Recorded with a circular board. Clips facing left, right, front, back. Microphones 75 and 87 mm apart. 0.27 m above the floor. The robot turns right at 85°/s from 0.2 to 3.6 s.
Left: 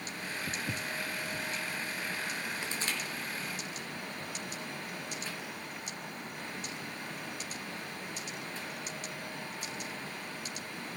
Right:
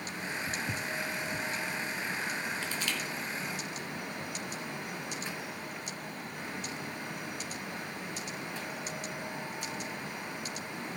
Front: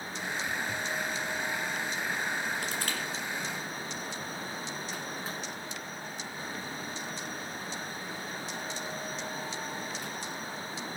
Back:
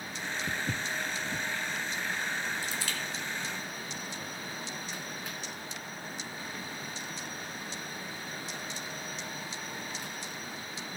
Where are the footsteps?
130° left, 0.7 m; by 1.4 s 150° right, 0.7 m.